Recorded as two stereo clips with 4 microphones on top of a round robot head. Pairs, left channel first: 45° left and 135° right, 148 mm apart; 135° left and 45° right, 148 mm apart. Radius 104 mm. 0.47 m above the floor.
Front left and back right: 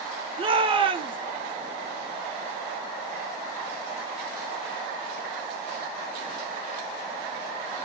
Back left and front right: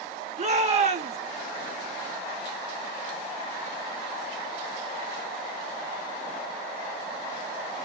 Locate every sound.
0.4 s a shout: 80° right, 1.7 m